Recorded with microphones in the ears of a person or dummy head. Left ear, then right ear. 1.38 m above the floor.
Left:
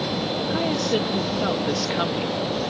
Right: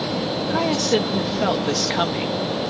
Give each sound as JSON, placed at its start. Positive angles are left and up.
{"t": 0.5, "sound": "a woman speaking", "side_deg": -15}